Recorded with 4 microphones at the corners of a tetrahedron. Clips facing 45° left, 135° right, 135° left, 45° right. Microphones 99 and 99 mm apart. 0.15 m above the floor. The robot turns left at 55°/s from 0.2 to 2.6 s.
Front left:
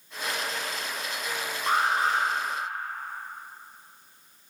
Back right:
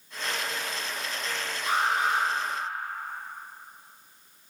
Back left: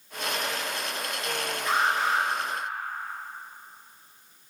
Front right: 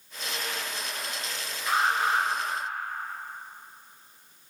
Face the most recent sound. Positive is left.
turn(degrees=-15)